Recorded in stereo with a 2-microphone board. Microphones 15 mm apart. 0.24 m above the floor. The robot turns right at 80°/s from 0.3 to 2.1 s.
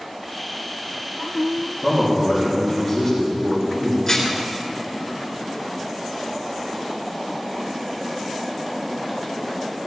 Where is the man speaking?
20° right (ahead or behind), 6.5 m; by 4.0 s centre (ahead or behind), 6.5 m.